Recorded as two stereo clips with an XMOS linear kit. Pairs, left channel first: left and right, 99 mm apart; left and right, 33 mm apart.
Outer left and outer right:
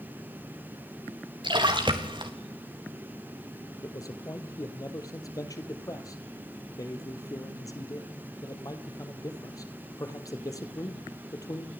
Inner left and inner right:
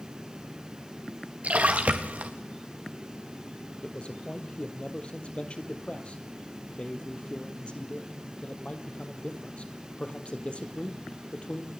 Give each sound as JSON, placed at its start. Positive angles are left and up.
{"t": 1.4, "sound": "a splash", "side_deg": -55, "distance_m": 2.5}
{"t": 3.8, "sound": "a man speaking", "side_deg": 35, "distance_m": 2.5}